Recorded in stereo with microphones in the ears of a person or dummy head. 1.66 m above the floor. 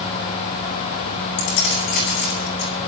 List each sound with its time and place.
1.4 s keys jangling: 60° left (ahead or behind), 6 m